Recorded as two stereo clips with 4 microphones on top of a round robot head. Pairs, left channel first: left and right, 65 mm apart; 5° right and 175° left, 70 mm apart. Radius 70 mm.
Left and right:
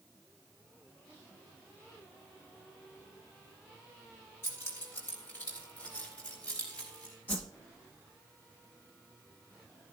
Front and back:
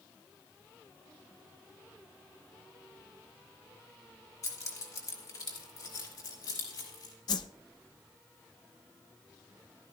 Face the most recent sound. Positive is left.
turn(degrees=20)